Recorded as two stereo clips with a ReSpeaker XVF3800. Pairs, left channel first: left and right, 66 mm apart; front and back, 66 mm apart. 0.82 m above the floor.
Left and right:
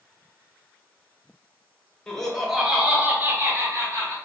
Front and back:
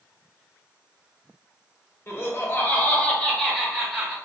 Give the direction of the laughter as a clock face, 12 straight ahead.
11 o'clock.